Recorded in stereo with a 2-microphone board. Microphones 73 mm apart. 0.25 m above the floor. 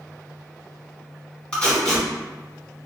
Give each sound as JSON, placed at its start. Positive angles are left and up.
{"t": 1.5, "sound": "tape being pulled", "side_deg": 15, "distance_m": 1.3}